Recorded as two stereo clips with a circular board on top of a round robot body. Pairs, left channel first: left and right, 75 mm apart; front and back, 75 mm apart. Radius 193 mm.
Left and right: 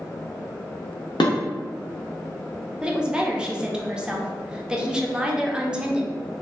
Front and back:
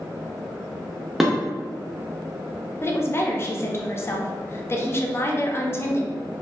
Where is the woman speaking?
20° right, 0.7 m.